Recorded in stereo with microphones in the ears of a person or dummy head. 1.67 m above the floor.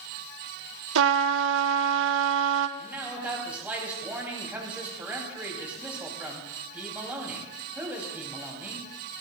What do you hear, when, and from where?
0.9 s a trumpet: 70° right (ahead or behind), 0.7 m
2.8 s a man speaking: 10° right (ahead or behind), 2.5 m